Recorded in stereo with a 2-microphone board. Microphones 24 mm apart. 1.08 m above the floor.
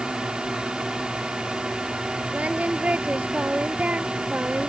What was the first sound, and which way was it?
A drone, 35° right (ahead or behind).